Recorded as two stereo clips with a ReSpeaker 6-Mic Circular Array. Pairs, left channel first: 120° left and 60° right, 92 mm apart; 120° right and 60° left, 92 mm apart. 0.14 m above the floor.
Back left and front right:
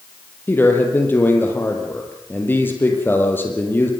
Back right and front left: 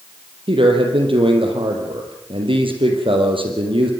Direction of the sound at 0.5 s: 55° left.